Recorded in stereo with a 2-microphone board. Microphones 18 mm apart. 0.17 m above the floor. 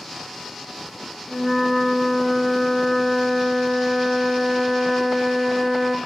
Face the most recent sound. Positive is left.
turn(degrees=20)  # may be behind; listen again after turning